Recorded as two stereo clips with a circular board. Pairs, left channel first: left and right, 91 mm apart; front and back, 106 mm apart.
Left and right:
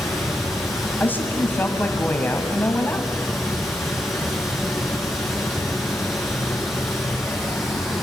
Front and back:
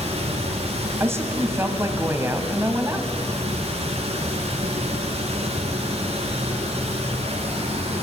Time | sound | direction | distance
0.0 | running water | straight behind | 5 m
1.0 | a woman speaking | 140° left | 1.7 m